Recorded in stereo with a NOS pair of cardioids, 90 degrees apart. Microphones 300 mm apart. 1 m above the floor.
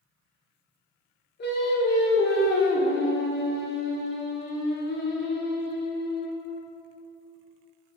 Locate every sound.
1.4 s singing: 35° left, 1.1 m